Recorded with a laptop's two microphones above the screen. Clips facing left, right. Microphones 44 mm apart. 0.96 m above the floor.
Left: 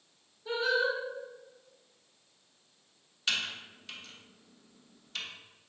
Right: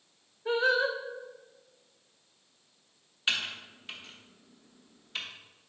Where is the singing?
45° right (ahead or behind), 0.8 m.